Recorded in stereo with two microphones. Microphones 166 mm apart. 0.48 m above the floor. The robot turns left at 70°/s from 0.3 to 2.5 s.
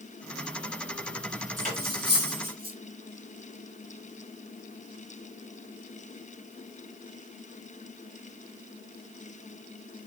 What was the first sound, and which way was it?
Cutlery clinking, 50° right (ahead or behind).